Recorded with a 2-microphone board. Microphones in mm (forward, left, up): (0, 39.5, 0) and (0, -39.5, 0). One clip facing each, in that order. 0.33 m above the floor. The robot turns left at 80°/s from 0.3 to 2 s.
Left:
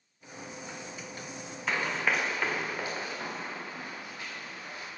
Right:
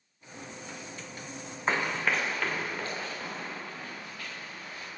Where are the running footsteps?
35° right (ahead or behind), 1.3 m; by 4.9 s 25° left (ahead or behind), 5 m.